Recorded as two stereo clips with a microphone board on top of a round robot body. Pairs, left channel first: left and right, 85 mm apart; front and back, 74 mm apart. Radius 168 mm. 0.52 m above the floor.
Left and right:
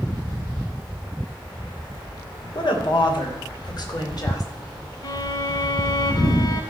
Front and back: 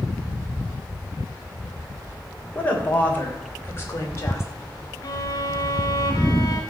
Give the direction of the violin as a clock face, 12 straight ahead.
10 o'clock.